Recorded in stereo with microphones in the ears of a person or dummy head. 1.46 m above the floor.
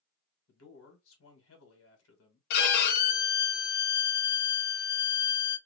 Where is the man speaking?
85° left, 1.6 m.